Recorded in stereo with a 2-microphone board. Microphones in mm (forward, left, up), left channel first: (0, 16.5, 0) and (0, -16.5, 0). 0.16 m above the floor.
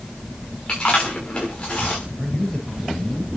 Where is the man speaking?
25° left (ahead or behind), 3.5 m.